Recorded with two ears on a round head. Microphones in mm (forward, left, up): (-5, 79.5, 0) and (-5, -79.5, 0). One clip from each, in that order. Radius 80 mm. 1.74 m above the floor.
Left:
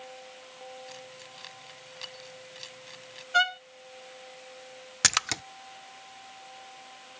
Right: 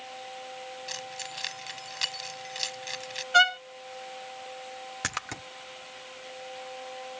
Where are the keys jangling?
50° right (ahead or behind).